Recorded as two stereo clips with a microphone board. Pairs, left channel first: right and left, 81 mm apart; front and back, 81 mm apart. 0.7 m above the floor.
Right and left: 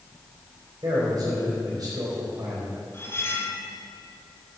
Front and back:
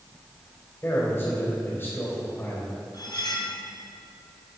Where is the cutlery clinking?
30° right, 1.5 m.